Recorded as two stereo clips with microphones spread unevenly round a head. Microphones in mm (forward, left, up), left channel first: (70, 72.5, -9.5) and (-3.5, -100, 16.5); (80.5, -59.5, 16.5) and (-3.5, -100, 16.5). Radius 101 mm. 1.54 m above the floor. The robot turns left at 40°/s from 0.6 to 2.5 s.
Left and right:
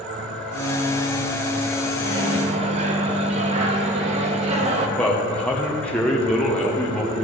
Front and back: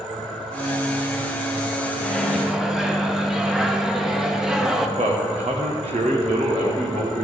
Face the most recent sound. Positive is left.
turn(degrees=155)